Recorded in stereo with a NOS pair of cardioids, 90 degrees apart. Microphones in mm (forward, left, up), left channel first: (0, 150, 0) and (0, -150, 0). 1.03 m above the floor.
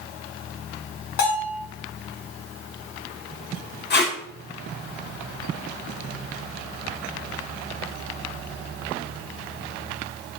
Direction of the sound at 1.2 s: 70° left.